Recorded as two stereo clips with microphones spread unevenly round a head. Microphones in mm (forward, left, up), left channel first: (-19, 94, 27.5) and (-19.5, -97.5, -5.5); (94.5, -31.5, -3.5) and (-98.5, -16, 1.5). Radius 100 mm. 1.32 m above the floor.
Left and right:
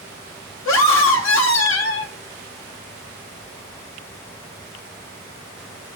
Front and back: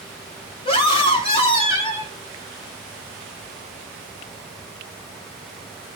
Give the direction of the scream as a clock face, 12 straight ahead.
10 o'clock.